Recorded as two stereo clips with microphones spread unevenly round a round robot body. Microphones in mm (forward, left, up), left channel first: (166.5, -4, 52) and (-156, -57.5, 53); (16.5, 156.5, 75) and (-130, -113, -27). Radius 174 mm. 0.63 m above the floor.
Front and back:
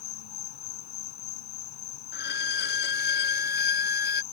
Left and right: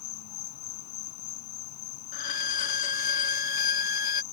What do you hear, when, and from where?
0.0 s an insect: 25° left
2.1 s a violin: 60° left